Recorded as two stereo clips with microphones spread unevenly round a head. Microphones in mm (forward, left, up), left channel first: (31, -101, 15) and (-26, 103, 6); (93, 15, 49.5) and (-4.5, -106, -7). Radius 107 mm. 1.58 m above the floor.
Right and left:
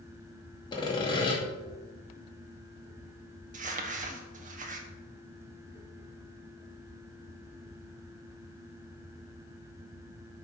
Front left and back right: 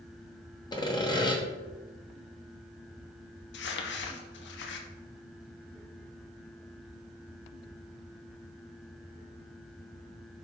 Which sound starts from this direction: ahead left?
Crumpling, at 3.5 s.